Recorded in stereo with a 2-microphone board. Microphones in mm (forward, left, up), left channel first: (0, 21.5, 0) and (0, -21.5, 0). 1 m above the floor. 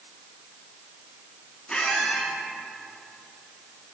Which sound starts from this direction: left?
A squeak, at 1.7 s.